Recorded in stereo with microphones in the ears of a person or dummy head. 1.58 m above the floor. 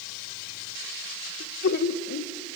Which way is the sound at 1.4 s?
55° left (ahead or behind).